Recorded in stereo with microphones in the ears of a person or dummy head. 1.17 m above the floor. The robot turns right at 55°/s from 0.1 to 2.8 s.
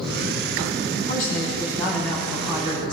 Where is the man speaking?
115° left, 6.5 m; by 2.9 s 145° right, 6.5 m.